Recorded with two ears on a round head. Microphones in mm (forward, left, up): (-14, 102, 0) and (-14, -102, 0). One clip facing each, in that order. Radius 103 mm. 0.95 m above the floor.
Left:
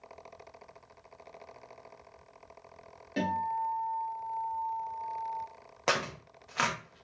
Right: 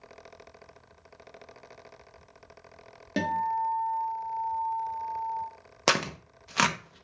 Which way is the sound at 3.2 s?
60° right (ahead or behind).